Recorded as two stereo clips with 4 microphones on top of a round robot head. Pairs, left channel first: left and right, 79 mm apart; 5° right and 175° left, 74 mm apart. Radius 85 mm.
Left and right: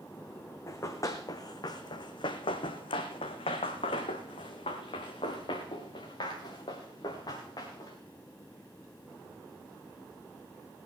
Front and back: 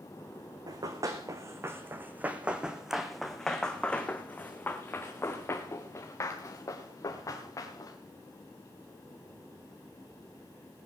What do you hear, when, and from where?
0.7 s running footsteps: 140° left, 1.6 m; by 8.0 s 40° left, 3.5 m